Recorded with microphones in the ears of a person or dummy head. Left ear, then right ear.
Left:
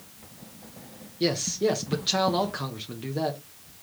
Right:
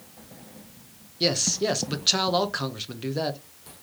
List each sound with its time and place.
1.2 s a man speaking: 20° right (ahead or behind), 0.7 m